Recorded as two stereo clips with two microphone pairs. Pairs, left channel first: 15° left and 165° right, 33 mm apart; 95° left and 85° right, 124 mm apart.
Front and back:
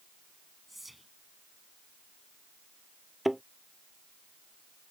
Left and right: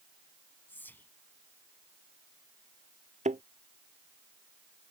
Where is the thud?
80° right.